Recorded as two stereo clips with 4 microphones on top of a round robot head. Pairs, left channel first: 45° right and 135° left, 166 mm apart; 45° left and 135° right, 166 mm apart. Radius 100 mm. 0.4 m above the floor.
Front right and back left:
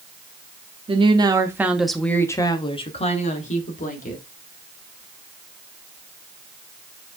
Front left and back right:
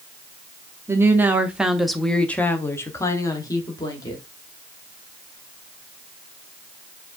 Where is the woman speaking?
160° left, 0.9 m; by 4.2 s 20° right, 1.4 m.